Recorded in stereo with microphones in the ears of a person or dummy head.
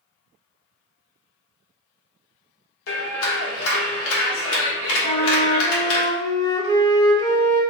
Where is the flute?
20° left (ahead or behind), 1.2 m.